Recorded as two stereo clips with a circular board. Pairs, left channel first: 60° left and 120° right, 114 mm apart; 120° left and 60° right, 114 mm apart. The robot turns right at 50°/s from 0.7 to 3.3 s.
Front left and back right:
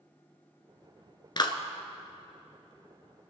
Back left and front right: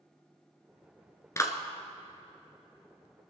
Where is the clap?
70° left, 1.3 m; by 1.6 s 80° left, 1.3 m.